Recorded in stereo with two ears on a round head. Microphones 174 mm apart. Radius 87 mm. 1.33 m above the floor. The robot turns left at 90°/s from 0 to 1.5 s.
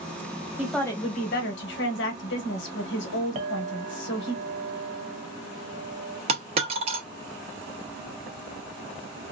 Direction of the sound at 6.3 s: 30° right (ahead or behind).